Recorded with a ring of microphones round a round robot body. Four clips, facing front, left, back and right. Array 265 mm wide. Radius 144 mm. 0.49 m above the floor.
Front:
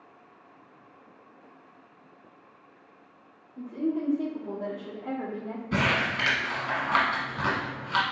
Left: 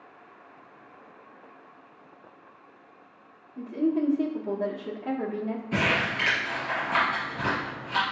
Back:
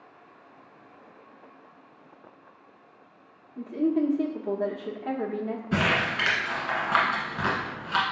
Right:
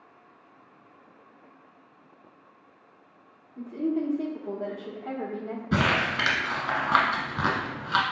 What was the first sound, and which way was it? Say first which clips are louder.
A woman speaking: left 2 dB, back 4 dB; 150° left.